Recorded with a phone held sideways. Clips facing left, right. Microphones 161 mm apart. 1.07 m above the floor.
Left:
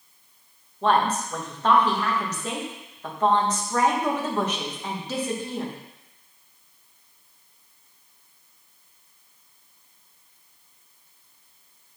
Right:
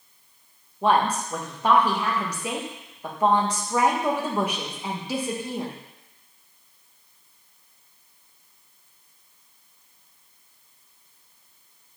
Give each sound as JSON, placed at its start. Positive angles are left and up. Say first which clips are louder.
{"t": 0.8, "sound": "a woman speaking", "louder": "even", "side_deg": -10, "distance_m": 1.1}